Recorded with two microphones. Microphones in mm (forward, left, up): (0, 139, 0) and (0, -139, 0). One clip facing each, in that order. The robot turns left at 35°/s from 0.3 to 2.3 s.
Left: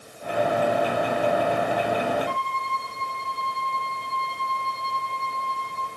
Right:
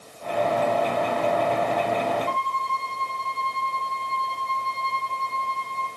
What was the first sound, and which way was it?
A violin, 60° right (ahead or behind).